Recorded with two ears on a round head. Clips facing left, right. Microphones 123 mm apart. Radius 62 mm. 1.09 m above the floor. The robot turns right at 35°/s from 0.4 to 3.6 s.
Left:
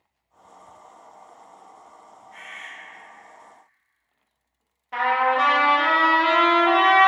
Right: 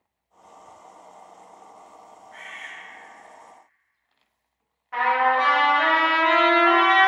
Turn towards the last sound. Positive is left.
turn(degrees=30)  # may be behind; listen again after turning